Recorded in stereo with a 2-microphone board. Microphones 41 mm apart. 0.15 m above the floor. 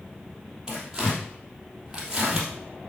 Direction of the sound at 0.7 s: 15° right (ahead or behind).